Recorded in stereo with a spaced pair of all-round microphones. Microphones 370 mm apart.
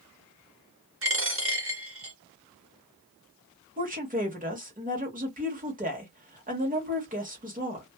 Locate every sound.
1.0 s a dropped coin: 35° right (ahead or behind), 1.0 m
3.8 s a woman speaking: 20° right (ahead or behind), 1.1 m